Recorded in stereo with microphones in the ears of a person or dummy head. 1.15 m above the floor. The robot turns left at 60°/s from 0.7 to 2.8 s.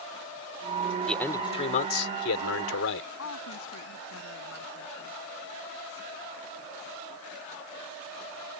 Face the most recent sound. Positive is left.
turn(degrees=85)